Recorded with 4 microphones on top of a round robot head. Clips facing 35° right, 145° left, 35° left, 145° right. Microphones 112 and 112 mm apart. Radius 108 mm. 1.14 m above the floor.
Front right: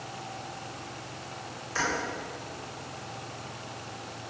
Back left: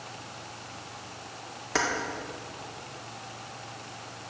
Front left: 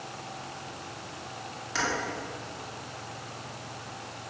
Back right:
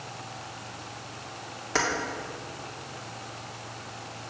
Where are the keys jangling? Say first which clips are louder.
Back left 3 dB, back right 4 dB; 170° left, 1.9 m.